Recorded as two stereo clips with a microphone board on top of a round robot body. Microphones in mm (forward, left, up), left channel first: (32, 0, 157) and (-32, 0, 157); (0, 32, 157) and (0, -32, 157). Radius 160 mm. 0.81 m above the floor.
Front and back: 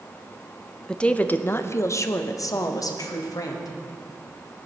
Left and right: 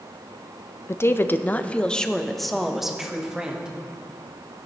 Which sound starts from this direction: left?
A woman speaking, at 0.9 s.